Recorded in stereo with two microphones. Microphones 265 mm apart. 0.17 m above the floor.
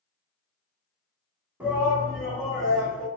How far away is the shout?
About 1.1 m.